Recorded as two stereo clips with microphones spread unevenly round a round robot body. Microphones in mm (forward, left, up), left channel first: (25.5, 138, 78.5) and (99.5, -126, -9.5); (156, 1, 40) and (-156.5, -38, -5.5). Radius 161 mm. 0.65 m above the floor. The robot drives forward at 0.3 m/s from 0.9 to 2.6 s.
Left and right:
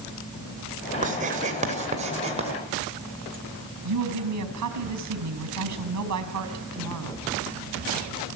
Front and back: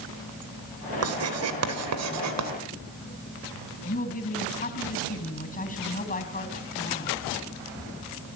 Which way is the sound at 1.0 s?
130° right.